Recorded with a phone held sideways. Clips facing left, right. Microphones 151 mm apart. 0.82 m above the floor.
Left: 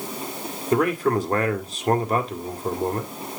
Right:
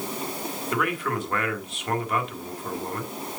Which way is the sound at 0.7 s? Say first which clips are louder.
Left 8 dB; 35° left (ahead or behind).